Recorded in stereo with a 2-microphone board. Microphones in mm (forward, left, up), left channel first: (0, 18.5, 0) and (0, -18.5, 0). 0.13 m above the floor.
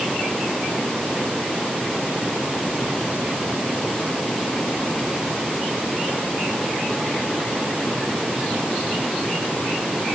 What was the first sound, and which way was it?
Only background noise.